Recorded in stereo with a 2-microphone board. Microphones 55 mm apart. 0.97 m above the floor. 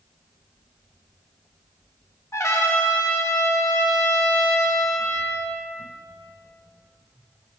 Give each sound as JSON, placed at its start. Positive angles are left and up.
{"t": 2.3, "sound": "a trumpet", "side_deg": 65, "distance_m": 1.2}